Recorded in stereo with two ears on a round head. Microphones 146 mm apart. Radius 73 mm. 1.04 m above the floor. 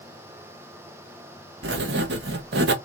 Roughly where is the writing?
Right.